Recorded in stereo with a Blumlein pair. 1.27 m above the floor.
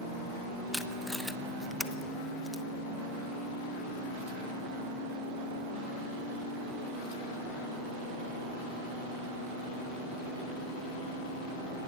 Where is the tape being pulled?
5° left, 0.8 m.